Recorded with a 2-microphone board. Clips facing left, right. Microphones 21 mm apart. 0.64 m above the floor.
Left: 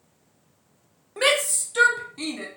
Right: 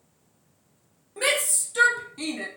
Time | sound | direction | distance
1.2 | a shout | 25° left (ahead or behind) | 0.8 m